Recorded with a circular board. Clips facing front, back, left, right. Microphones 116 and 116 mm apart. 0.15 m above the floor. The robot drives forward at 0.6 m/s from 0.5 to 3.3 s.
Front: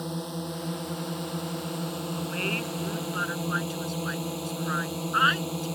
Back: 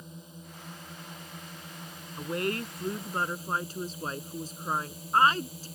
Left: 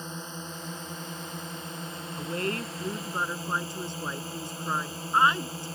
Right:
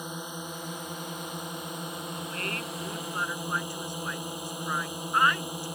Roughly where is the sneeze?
I don't hear a sneeze.